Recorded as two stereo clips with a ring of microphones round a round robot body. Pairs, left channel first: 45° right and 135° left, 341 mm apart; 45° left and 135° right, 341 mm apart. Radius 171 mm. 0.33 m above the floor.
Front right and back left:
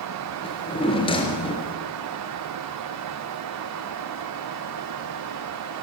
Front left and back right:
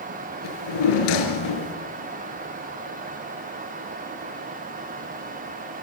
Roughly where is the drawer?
Ahead left.